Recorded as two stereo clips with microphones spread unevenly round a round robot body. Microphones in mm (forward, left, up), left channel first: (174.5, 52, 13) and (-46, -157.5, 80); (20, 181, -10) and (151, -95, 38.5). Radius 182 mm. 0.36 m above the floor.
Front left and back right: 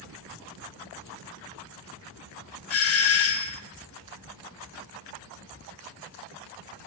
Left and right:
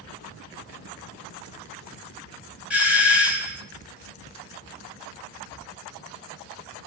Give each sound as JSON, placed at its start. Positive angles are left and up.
{"t": 2.7, "sound": "a doorbell", "azimuth_deg": 25, "distance_m": 2.5}